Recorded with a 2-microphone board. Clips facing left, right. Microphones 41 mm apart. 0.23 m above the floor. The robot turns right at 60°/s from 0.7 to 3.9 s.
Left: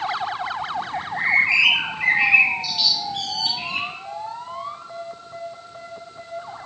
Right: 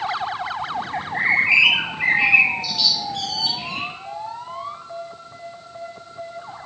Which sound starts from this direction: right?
A bird, at 0.9 s.